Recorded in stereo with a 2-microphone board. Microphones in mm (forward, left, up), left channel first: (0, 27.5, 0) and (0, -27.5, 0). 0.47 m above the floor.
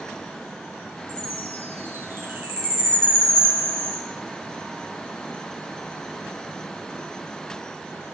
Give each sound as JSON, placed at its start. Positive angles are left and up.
{"t": 1.1, "sound": "a chime", "side_deg": -45, "distance_m": 3.5}